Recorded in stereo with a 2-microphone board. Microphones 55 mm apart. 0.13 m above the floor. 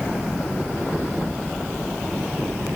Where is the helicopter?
30° left (ahead or behind); by 2.8 s 20° left (ahead or behind).